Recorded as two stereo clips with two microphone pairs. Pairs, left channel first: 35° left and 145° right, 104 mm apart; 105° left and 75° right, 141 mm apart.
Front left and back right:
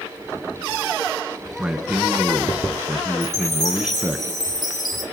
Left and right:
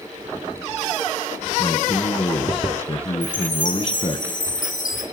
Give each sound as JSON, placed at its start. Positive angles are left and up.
{"t": 1.6, "sound": "a man speaking", "azimuth_deg": 135, "distance_m": 1.8}
{"t": 3.2, "sound": "a chime", "azimuth_deg": 85, "distance_m": 3.5}